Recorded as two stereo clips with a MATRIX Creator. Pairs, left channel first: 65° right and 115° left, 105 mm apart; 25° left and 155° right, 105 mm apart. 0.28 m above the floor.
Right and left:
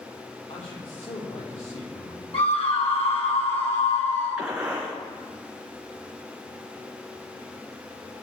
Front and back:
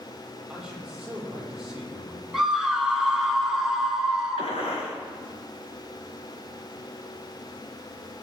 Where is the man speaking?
75° right, 7.5 m.